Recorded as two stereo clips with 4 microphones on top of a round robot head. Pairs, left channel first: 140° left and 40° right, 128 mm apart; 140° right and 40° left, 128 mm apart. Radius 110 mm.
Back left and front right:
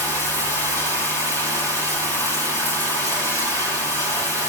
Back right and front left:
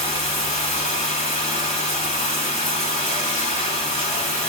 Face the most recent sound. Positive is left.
turn(degrees=-100)